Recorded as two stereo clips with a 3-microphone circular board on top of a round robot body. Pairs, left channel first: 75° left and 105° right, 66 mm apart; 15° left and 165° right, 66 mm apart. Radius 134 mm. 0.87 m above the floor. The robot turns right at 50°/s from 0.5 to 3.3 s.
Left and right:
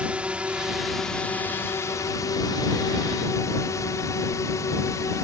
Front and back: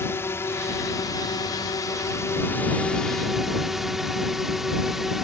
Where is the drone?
35° right; by 5.2 s 110° left.